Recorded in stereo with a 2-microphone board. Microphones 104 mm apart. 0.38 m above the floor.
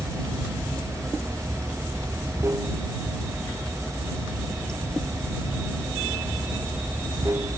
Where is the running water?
30° right (ahead or behind).